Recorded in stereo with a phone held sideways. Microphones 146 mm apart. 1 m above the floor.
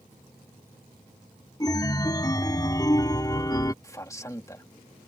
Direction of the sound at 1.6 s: 25° left (ahead or behind).